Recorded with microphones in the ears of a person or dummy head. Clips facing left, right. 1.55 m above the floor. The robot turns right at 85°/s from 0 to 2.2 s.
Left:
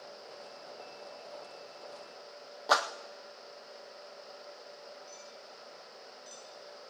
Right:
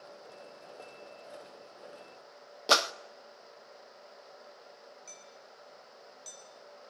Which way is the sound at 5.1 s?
80° right.